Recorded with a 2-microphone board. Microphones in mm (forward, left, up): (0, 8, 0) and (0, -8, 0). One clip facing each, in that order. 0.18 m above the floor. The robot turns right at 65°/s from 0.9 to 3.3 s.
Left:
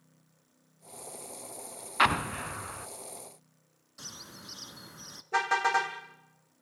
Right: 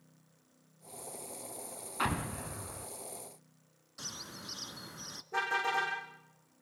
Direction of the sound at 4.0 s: 5° right (ahead or behind).